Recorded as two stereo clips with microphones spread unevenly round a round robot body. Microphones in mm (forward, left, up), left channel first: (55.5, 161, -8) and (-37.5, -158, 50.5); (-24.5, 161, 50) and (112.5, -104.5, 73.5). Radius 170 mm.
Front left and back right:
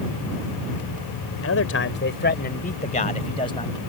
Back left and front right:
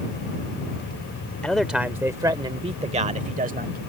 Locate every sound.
1.4 s a man speaking: 30° left; by 3.8 s straight ahead